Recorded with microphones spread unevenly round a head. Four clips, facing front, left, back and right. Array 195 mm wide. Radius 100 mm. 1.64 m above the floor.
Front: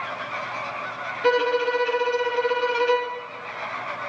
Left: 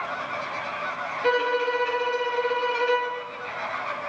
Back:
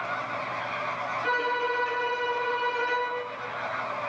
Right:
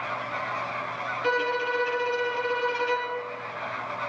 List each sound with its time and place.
1.2 s a violin: 10° left, 3 m